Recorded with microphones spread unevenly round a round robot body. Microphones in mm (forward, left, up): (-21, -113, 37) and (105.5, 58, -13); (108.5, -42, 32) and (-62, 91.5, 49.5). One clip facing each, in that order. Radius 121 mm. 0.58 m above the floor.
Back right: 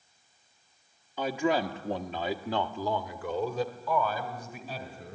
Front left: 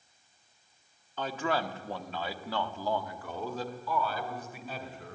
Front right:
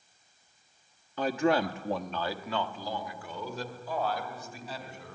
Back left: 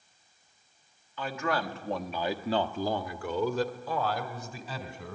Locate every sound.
1.2 s a man speaking: 35° right, 1.5 m; by 5.2 s 150° left, 3.5 m